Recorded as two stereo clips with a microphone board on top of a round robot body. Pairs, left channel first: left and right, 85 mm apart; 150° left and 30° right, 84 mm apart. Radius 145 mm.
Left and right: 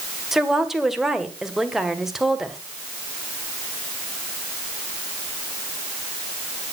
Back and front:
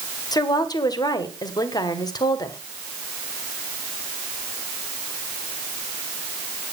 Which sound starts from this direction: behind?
A woman speaking, at 0.3 s.